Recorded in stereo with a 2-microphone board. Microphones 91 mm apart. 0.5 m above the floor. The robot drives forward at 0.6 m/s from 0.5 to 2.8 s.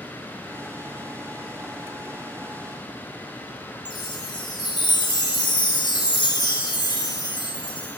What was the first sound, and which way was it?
A chime, 80° left.